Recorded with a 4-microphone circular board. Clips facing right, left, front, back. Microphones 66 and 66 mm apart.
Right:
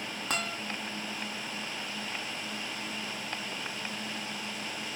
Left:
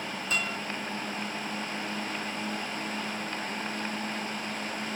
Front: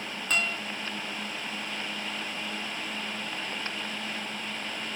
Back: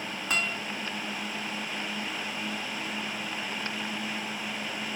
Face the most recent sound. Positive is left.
turn(degrees=-100)